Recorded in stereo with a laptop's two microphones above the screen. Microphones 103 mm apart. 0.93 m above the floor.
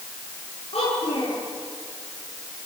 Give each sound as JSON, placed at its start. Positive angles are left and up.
{"t": 0.7, "sound": "a child speaking", "side_deg": 70, "distance_m": 8.5}